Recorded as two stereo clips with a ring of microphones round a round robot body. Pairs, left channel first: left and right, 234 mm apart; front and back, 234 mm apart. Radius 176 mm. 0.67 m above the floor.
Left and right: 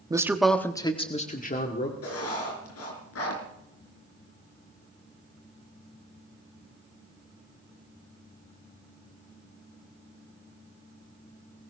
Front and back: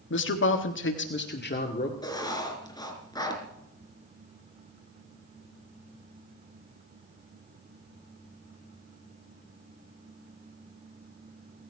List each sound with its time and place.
0.1 s a man speaking: 20° right, 1.6 m; by 1.9 s 50° left, 2.5 m
2.0 s writing: 75° left, 4.5 m